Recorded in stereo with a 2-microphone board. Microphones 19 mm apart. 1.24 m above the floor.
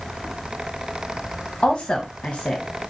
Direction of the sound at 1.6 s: 85° left.